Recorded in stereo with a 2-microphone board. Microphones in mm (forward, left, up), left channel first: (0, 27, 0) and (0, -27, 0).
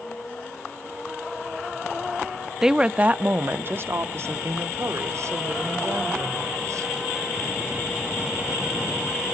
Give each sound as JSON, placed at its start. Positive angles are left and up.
{"t": 2.6, "sound": "a woman speaking", "side_deg": -10, "distance_m": 0.6}